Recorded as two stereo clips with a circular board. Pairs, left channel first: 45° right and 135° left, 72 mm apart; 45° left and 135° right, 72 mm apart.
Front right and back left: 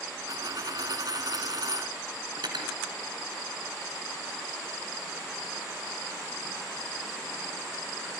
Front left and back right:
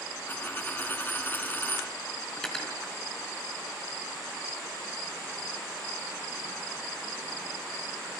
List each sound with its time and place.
0.3 s a dropped coin: 105° left, 1.9 m
2.4 s cutlery clinking: 125° left, 4 m